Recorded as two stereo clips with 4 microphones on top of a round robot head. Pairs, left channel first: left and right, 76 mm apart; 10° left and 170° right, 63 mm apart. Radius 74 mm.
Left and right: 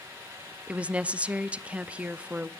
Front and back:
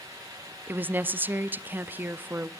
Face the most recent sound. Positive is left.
turn(degrees=-150)